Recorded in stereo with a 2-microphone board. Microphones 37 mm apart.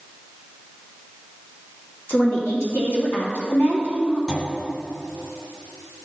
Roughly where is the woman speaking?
Left.